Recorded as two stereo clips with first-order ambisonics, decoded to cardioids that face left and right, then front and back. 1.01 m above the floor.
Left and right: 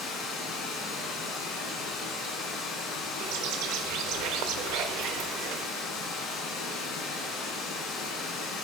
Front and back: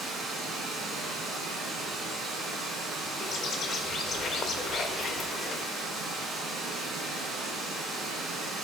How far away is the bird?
About 0.6 m.